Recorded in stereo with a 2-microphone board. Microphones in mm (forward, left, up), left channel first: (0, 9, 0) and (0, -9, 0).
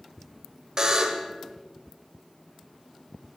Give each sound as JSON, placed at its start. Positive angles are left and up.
{"t": 0.8, "sound": "a buzzer", "side_deg": -35, "distance_m": 1.8}